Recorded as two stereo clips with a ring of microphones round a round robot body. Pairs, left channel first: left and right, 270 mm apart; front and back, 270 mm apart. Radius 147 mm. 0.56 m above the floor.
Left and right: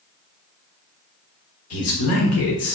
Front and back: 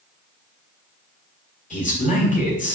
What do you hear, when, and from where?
1.7 s a man speaking: 60° left, 2.5 m